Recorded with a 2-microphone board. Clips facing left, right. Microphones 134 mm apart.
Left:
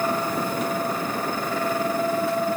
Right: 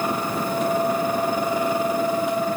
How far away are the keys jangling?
I don't hear keys jangling.